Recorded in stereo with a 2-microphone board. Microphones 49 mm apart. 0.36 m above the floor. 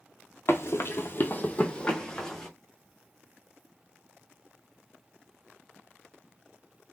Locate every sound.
0.5 s running footsteps: 55° left (ahead or behind), 0.6 m; by 2.5 s 10° left (ahead or behind), 1.0 m